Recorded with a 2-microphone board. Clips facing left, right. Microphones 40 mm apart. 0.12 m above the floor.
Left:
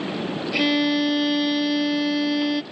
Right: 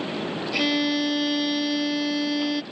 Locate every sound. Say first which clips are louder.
0.5 s a violin: left 3 dB; 10° left (ahead or behind)